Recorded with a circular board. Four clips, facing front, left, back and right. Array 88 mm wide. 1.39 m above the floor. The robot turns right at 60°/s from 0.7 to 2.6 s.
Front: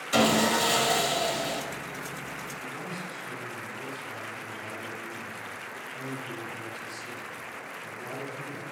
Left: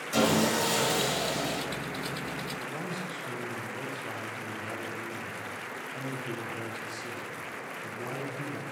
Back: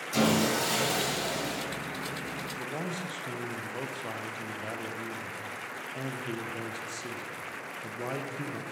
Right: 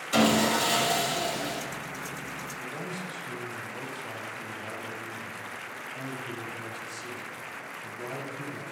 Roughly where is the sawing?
Ahead right.